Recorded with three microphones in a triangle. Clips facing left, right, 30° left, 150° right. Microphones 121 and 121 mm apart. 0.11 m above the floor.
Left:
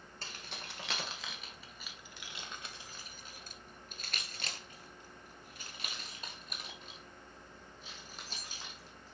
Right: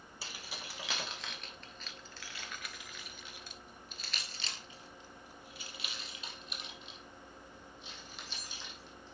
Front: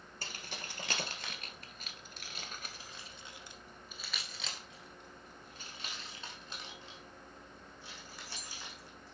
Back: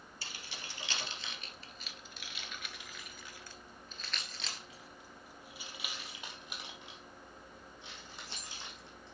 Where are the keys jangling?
10° right, 1.7 m; by 9.1 s 140° left, 3.5 m.